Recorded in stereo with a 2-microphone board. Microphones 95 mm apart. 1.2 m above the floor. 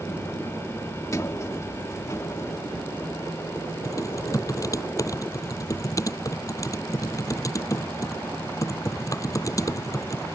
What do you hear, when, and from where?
1.1 s a sliding door: 35° left (ahead or behind)
3.9 s typing on a keyboard: 35° left (ahead or behind)